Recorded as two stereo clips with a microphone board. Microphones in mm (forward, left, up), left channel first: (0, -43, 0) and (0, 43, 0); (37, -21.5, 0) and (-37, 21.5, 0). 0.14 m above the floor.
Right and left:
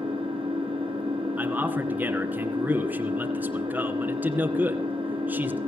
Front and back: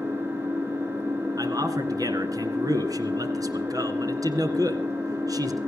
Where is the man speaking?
150° left, 2 m.